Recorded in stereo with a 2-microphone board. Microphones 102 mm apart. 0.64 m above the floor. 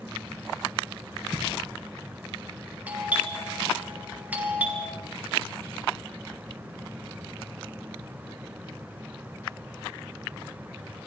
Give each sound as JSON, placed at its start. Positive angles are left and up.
{"t": 1.3, "sound": "a thud", "side_deg": 15, "distance_m": 6.0}
{"t": 2.9, "sound": "a doorbell", "side_deg": -15, "distance_m": 6.5}